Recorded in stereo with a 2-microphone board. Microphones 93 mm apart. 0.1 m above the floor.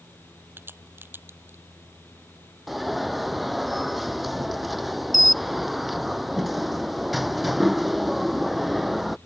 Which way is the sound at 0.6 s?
20° right (ahead or behind).